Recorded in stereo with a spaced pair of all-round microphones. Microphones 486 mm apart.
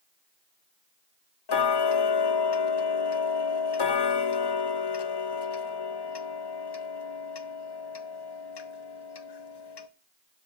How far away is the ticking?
About 0.5 m.